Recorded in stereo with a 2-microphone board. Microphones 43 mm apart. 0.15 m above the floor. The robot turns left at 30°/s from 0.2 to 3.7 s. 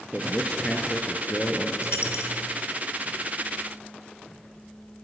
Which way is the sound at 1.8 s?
75° left (ahead or behind).